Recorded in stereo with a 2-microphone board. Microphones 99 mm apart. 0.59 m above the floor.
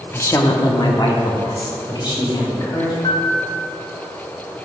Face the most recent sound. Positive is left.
turn(degrees=60)  # may be behind; listen again after turning